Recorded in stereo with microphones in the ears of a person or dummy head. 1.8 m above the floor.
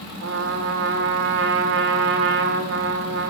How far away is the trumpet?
About 2.5 m.